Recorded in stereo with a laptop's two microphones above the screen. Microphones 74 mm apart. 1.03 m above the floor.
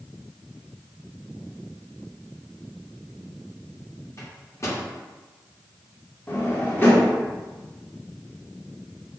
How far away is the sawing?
I don't hear sawing.